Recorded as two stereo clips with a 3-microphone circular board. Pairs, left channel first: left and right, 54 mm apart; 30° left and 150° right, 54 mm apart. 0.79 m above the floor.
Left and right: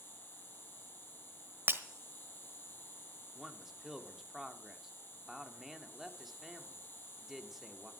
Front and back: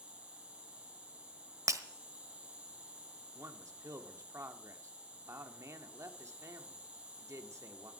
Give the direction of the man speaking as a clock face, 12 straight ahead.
6 o'clock.